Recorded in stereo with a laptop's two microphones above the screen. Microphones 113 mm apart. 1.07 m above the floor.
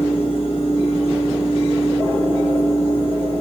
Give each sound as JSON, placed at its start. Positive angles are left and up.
{"t": 0.0, "sound": "a fan", "side_deg": 60, "distance_m": 1.2}